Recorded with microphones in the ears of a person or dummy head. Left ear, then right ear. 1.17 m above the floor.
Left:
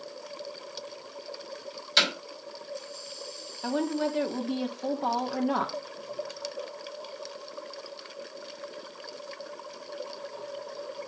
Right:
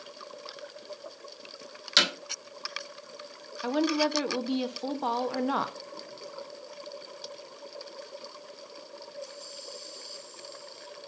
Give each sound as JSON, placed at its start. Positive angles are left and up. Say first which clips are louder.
{"t": 2.0, "sound": "hammering", "louder": "even", "side_deg": -30, "distance_m": 3.5}
{"t": 3.6, "sound": "a woman speaking", "louder": "right 2 dB", "side_deg": -25, "distance_m": 0.6}